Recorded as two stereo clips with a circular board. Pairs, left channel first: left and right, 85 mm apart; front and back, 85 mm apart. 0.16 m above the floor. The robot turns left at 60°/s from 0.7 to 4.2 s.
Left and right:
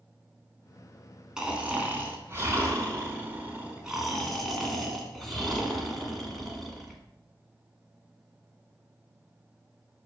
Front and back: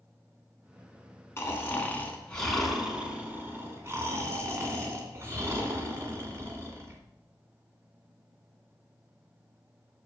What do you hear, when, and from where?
1.4 s snoring: 15° right, 1.9 m; by 7.0 s 175° left, 1.9 m